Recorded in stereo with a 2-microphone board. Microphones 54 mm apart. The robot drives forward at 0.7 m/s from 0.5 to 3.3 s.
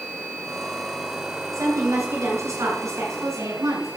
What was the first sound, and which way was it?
A woman speaking, 80° right.